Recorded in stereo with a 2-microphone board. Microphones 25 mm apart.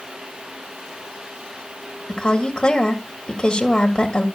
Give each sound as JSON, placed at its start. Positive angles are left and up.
{"t": 2.1, "sound": "a woman speaking", "side_deg": 25, "distance_m": 1.6}